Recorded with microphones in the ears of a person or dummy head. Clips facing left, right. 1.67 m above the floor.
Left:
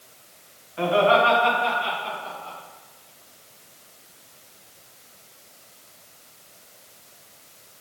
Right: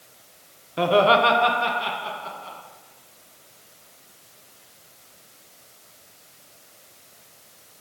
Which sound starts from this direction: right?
Laughter, at 0.8 s.